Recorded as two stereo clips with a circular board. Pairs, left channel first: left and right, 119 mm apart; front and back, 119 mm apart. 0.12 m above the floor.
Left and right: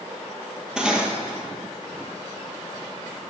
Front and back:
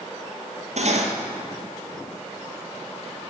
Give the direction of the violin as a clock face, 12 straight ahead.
I don't hear a violin.